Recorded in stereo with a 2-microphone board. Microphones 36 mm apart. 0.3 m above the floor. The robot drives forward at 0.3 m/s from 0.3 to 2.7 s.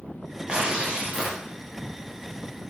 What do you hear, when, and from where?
0.5 s tearing paper: 25° right (ahead or behind), 0.9 m; by 1.4 s 20° right (ahead or behind), 1.1 m